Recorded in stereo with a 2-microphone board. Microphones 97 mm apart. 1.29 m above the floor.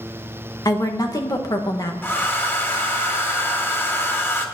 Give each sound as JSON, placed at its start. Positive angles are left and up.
{"t": 0.7, "sound": "a woman speaking", "side_deg": 40, "distance_m": 1.6}
{"t": 2.0, "sound": "a hair dryer", "side_deg": 20, "distance_m": 1.4}